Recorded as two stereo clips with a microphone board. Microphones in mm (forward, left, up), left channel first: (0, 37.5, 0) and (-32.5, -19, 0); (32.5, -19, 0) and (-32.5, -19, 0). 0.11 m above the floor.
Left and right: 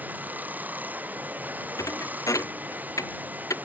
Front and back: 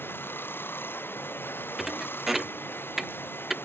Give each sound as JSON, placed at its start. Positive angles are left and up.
{"t": 0.0, "sound": "running water", "azimuth_deg": -55}
{"t": 1.8, "sound": "a thud", "azimuth_deg": 95}